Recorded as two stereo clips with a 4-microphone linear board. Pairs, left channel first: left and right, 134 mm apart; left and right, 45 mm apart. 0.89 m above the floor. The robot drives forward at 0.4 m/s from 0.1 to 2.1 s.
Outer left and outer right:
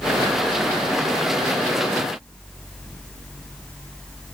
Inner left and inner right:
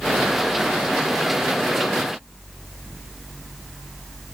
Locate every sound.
Only background noise.